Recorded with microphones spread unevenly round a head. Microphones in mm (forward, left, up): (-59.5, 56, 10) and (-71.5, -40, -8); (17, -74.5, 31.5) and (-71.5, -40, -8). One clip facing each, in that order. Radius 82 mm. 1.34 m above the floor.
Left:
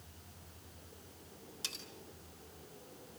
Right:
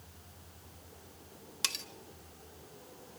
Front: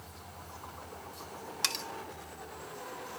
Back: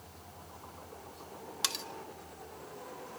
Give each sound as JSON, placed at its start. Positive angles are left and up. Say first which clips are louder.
{"t": 1.6, "sound": "cutlery clinking", "louder": "right 10 dB, even", "azimuth_deg": -115, "distance_m": 1.7}